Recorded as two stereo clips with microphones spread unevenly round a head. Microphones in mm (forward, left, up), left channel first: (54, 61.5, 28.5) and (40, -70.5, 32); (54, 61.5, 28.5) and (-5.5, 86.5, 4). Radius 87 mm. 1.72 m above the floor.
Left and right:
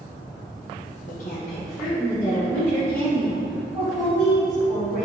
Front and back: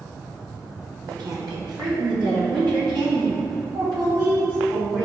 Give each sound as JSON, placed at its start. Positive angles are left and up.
{"t": 1.1, "sound": "a woman speaking", "azimuth_deg": 125, "distance_m": 1.3}